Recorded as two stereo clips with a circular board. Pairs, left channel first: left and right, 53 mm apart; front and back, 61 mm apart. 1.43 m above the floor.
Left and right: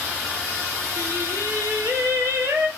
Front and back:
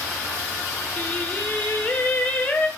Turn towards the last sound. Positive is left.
turn(degrees=-65)